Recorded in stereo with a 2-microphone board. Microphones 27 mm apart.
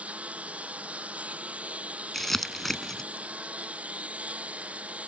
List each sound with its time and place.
0.0 s a lawn mower: 60° right (ahead or behind)
2.1 s crumpling: 10° left (ahead or behind)